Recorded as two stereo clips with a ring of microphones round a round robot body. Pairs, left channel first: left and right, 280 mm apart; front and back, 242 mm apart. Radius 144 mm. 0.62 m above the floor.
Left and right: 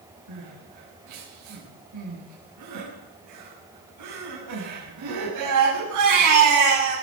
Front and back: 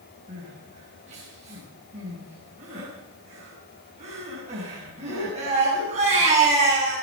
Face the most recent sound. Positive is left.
turn(degrees=-110)